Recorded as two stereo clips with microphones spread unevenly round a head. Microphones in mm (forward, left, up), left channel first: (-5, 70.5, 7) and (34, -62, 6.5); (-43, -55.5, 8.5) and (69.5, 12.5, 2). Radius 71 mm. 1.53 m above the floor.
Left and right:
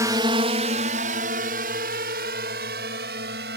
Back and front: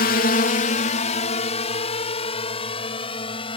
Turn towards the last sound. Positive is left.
turn(degrees=-95)